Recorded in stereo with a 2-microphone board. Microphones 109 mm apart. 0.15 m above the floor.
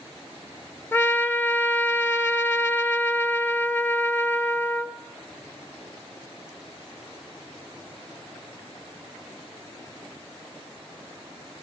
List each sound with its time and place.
0.9 s a trumpet: 20° left (ahead or behind), 0.6 m